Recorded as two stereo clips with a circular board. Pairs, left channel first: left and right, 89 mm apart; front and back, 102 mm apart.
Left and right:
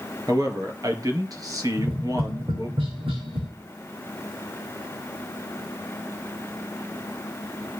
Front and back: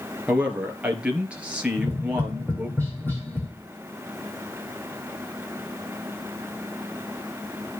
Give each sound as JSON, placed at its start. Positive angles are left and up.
{"t": 0.3, "sound": "a man speaking", "azimuth_deg": -105, "distance_m": 2.0}
{"t": 1.8, "sound": "tapping", "azimuth_deg": -70, "distance_m": 4.5}